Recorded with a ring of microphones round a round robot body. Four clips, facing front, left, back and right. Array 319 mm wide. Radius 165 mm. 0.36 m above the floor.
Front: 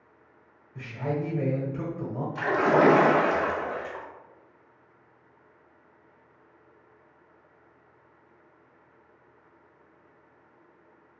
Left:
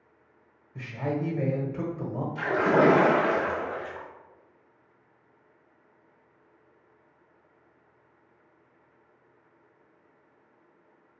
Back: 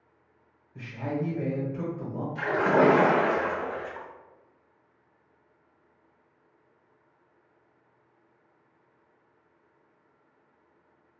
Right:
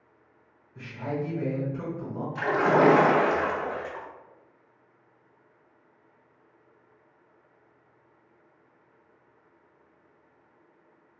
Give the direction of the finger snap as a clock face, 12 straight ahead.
I don't hear a finger snap.